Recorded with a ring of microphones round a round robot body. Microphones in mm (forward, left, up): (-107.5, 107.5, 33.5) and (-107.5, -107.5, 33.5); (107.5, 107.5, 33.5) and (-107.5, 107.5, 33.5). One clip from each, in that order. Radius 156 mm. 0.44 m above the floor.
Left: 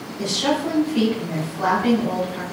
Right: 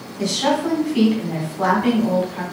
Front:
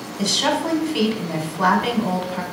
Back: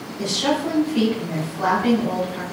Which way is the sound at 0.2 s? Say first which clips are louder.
Right 2 dB, front 2 dB; 20° right.